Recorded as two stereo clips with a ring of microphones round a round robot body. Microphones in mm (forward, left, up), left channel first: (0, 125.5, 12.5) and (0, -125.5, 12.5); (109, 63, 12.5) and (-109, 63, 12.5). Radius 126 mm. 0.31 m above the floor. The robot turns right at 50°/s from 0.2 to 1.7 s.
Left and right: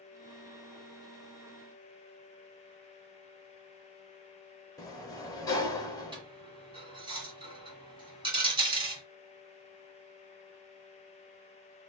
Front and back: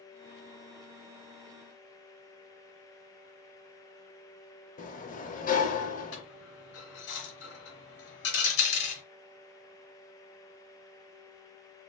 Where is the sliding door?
20° left, 0.6 m.